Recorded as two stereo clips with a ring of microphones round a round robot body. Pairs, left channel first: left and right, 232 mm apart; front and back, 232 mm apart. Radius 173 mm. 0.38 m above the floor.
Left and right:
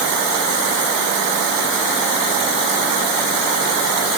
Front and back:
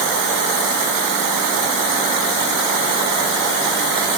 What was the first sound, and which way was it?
Only background noise.